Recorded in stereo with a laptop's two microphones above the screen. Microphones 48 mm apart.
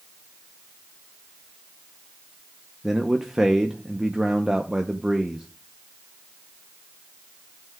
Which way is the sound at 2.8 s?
10° right (ahead or behind).